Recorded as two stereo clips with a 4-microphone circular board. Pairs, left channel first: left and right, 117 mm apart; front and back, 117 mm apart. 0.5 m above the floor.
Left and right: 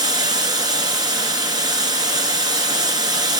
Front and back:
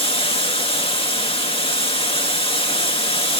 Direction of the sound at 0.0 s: 35° right.